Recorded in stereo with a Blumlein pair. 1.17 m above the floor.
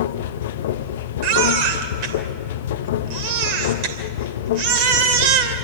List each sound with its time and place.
0.0 s a machine running: 55° left, 0.7 m
1.2 s a baby crying: 45° right, 2.5 m